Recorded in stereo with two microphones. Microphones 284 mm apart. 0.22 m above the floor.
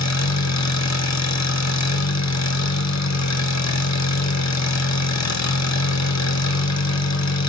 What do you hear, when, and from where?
0.0 s an engine running: 70° left (ahead or behind), 1.5 m